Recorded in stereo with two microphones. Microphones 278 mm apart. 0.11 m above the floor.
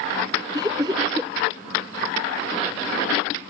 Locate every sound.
0.5 s laughter: 15° right (ahead or behind)